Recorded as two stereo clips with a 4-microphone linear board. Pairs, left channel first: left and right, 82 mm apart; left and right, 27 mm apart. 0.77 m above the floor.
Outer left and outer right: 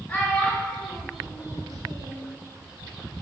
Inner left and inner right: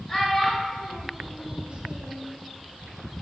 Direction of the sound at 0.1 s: 20° left (ahead or behind).